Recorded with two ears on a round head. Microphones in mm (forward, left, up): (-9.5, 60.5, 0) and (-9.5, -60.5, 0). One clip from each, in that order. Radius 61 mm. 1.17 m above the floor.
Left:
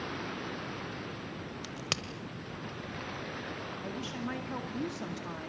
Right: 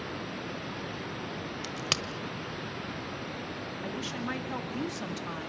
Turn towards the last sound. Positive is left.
turn(degrees=-25)  # may be behind; listen again after turning